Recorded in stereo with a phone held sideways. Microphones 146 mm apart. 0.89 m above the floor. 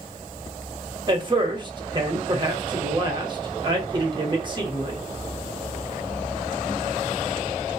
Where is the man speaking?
30° right (ahead or behind), 0.9 m.